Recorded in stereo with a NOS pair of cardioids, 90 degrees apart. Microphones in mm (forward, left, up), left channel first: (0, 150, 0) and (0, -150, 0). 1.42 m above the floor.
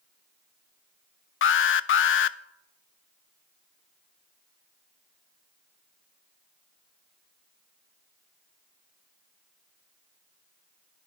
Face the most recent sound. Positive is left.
turn(degrees=45)